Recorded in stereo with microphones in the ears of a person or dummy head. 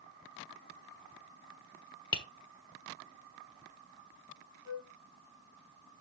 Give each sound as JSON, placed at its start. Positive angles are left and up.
{"t": 2.1, "sound": "tapping", "side_deg": 20, "distance_m": 1.4}
{"t": 4.7, "sound": "a flute", "side_deg": 20, "distance_m": 3.5}